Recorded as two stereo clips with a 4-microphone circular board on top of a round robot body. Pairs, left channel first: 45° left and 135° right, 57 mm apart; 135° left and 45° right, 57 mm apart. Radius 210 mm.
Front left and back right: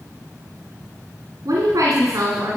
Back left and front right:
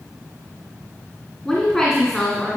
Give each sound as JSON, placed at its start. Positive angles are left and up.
{"t": 1.4, "sound": "a woman speaking", "azimuth_deg": -145, "distance_m": 2.0}